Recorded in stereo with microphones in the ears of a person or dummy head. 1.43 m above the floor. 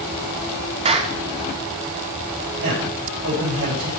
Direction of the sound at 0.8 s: 30° right (ahead or behind).